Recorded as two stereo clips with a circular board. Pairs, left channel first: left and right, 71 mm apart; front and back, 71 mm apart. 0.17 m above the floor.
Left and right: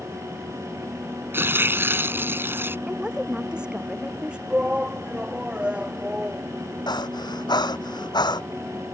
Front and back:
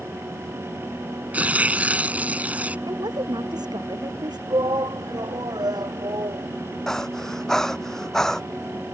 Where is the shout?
165° right.